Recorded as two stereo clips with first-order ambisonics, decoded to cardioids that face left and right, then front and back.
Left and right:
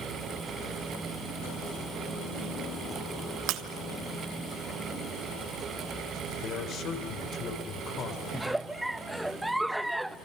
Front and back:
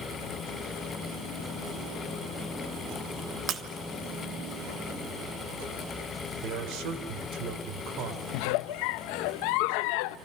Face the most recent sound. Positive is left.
turn(degrees=-5)